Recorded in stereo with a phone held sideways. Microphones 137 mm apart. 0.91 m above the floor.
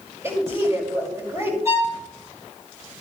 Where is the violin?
20° right (ahead or behind), 4.5 m.